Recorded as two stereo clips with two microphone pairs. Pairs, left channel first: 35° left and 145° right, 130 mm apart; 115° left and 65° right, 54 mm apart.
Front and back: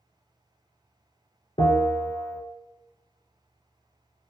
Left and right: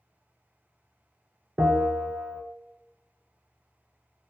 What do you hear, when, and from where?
1.6 s a bell: straight ahead, 0.6 m